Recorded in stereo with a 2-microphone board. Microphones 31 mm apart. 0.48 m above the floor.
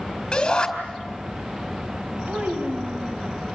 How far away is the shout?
About 5 m.